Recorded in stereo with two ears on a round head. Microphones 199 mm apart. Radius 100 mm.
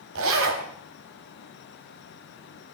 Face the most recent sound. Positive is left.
turn(degrees=-65)  # may be behind; listen again after turning